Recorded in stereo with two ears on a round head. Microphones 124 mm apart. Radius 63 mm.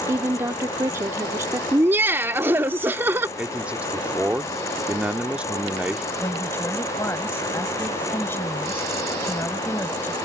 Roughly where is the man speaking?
Centre.